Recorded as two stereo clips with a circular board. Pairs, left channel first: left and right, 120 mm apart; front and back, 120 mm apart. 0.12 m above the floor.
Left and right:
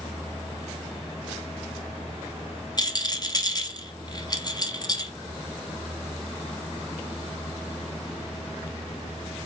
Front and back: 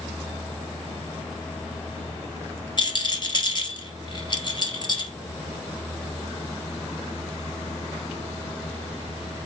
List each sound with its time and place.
2.8 s a rattle: 40° left, 1.8 m